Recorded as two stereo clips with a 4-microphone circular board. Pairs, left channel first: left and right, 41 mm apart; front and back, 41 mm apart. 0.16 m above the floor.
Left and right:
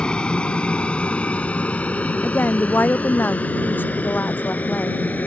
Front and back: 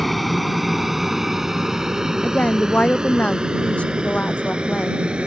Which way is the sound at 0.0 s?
85° left.